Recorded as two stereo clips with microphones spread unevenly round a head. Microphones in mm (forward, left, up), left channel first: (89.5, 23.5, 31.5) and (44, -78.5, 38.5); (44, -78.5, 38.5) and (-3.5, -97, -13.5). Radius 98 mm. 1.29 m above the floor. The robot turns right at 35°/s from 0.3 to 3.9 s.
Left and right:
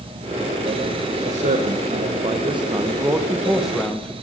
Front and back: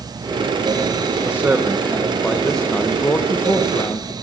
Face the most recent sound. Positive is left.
turn(degrees=-20)